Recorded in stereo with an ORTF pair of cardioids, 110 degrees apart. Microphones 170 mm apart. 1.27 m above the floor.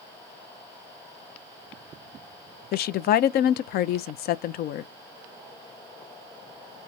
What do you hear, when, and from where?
2.7 s a woman speaking: 70° left, 0.6 m